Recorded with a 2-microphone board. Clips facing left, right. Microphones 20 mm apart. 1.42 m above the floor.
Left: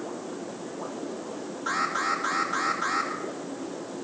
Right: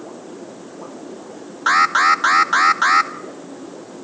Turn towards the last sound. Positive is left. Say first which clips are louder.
# right 13 dB
turn(degrees=-60)  # may be behind; listen again after turning